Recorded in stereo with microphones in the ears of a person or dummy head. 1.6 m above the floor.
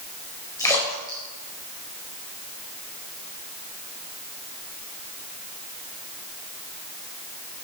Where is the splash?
15° left (ahead or behind), 4.5 m.